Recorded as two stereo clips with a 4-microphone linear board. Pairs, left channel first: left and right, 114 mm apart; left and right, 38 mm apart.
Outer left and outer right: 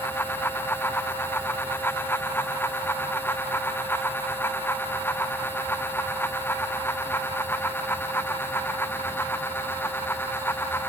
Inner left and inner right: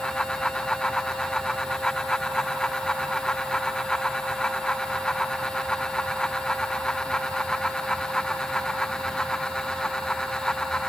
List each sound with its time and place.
Only background noise.